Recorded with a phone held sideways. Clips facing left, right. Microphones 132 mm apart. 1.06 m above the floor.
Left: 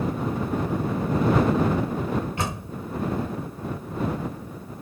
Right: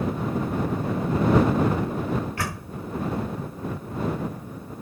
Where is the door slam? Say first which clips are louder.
Left 2 dB; 20° left (ahead or behind).